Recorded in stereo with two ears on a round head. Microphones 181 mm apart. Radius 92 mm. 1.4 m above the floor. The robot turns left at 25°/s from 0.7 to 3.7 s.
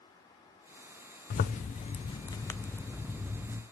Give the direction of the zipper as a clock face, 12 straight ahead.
11 o'clock.